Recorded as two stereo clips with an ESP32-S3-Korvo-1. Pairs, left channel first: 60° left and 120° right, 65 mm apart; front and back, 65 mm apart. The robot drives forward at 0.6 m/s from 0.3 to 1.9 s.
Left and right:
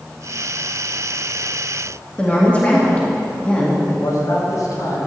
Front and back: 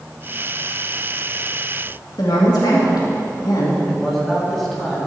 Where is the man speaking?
85° left, 3.5 m.